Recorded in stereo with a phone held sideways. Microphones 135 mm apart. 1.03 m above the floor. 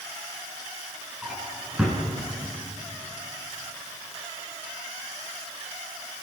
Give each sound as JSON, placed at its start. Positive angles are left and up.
{"t": 1.2, "sound": "a drawer", "side_deg": -5, "distance_m": 5.0}